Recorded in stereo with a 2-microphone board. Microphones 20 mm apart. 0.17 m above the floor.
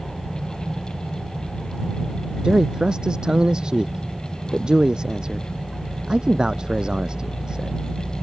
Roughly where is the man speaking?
Right.